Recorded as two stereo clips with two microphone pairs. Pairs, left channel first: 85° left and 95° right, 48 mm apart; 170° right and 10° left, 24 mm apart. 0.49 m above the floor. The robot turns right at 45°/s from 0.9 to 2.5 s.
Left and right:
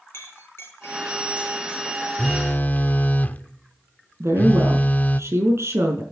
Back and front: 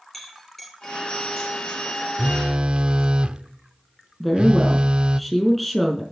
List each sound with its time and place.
0.1 s a clink: 110° left, 5 m; by 2.1 s 165° left, 5 m
2.2 s a phone buzzing: 30° left, 0.6 m; by 5.2 s 40° left, 0.6 m
4.2 s a woman speaking: 85° right, 5 m